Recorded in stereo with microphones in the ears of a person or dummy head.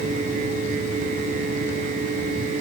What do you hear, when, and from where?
Only background noise.